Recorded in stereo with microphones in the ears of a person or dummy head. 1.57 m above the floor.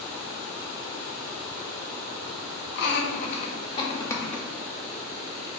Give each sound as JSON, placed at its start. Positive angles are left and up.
{"t": 2.8, "sound": "laughter", "side_deg": 55, "distance_m": 0.8}